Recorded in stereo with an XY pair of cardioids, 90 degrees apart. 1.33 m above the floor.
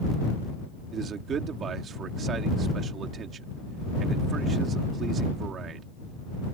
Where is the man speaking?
65° right.